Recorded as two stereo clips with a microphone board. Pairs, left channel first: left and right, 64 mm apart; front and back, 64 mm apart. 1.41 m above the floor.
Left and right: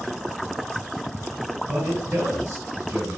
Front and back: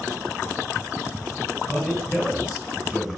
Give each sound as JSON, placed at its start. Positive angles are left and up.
{"t": 1.7, "sound": "a man speaking", "azimuth_deg": -95, "distance_m": 1.8}